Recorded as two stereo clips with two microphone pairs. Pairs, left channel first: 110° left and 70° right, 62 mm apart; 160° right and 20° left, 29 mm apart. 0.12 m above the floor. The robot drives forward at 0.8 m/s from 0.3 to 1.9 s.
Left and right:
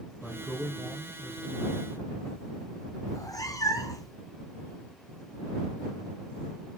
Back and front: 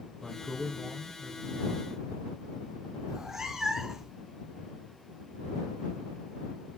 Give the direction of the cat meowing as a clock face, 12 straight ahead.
9 o'clock.